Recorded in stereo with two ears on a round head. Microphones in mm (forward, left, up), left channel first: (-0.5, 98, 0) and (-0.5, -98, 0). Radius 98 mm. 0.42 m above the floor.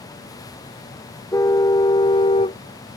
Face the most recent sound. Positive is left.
turn(degrees=25)  # may be behind; listen again after turning